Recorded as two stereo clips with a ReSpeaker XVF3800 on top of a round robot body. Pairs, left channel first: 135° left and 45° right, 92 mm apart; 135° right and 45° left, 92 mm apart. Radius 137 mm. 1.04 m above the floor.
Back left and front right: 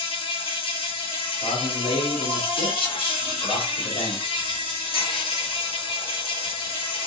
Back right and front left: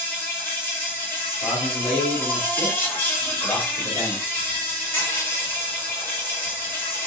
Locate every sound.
0.0 s an insect: 155° left, 4 m
1.4 s a man speaking: 170° left, 3 m